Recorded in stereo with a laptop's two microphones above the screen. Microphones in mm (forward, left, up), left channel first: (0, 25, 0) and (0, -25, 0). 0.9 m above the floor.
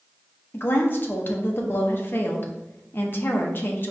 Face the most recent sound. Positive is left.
turn(degrees=45)  # may be behind; listen again after turning